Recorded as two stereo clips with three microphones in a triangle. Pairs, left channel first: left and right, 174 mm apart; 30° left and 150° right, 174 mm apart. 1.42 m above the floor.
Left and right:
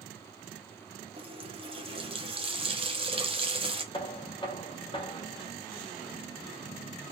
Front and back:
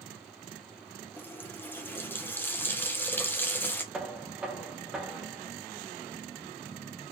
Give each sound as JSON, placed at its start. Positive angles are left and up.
{"t": 1.2, "sound": "a running tap", "azimuth_deg": -45, "distance_m": 0.6}
{"t": 3.9, "sound": "knocking", "azimuth_deg": 130, "distance_m": 0.6}